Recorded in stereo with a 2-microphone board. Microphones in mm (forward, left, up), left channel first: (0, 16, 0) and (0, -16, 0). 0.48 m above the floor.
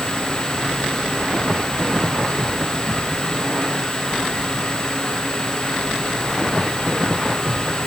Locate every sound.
Only background noise.